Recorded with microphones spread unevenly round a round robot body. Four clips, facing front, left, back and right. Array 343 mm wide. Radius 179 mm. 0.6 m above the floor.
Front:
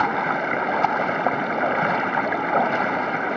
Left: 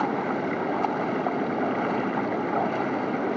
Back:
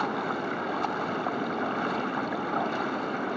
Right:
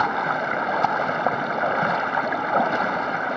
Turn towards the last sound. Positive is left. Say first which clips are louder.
# right 3 dB, front 7 dB
turn(degrees=-45)